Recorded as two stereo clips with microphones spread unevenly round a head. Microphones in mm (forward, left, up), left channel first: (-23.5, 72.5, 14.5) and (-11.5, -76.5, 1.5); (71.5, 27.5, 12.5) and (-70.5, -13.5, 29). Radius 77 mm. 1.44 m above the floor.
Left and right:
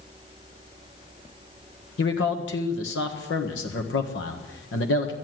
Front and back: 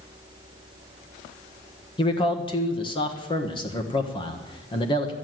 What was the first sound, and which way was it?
A man speaking, 75° left.